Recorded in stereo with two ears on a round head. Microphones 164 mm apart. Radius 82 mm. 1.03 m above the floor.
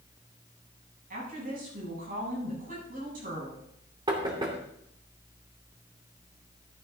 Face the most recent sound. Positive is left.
turn(degrees=-25)  # may be behind; listen again after turning